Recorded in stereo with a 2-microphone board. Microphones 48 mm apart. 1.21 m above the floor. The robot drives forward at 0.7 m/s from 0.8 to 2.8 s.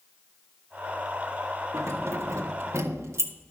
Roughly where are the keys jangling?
Right.